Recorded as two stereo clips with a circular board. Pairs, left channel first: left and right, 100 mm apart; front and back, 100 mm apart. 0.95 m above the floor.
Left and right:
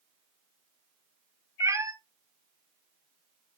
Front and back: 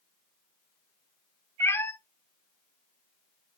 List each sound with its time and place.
1.6 s a cat meowing: 50° right, 0.6 m